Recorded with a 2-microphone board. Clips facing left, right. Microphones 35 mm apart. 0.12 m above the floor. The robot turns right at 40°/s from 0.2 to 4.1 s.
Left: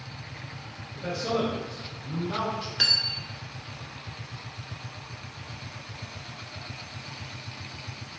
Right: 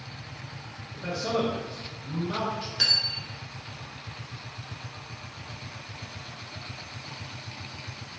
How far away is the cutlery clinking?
About 0.7 m.